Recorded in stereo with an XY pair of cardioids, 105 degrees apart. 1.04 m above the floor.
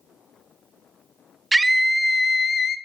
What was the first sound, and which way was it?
A scream, 15° right.